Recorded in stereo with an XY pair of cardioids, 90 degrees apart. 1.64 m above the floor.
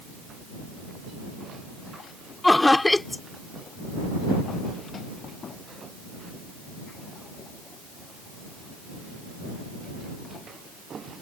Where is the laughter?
15° left.